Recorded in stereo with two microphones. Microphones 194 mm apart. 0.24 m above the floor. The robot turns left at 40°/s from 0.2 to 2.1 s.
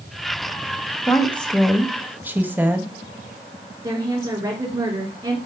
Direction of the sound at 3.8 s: 25° right (ahead or behind).